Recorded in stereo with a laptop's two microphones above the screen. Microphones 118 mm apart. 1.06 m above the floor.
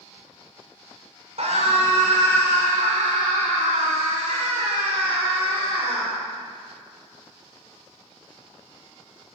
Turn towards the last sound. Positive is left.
turn(degrees=-50)  # may be behind; listen again after turning